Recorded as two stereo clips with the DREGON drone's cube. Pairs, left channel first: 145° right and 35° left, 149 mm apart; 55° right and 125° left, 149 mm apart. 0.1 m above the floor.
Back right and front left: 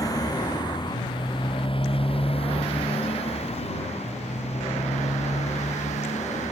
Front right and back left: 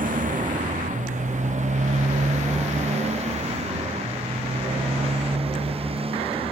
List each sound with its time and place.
0.0 s a motorcycle: 150° left; by 6.5 s 175° left